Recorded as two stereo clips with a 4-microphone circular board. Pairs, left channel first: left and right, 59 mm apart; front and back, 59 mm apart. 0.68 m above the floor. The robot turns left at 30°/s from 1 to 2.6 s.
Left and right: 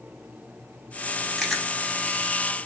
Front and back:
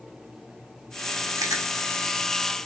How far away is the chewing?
About 0.8 m.